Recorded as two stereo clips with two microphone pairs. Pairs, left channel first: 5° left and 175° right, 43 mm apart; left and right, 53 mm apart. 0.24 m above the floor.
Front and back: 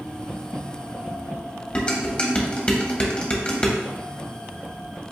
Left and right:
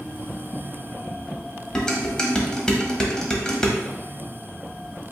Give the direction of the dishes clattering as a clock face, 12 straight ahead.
11 o'clock.